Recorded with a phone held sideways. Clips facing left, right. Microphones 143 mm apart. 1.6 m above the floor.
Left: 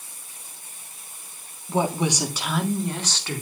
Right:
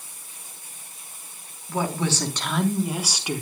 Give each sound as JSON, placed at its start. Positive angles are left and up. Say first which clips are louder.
{"t": 1.7, "sound": "a woman speaking", "louder": "left 3 dB", "side_deg": 25, "distance_m": 3.0}